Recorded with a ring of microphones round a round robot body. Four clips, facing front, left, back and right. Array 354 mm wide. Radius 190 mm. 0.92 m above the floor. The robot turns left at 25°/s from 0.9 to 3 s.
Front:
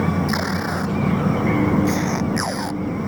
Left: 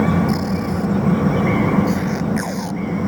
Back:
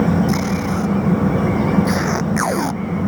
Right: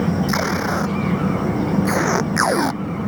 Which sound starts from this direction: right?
Tape being pulled, at 0.3 s.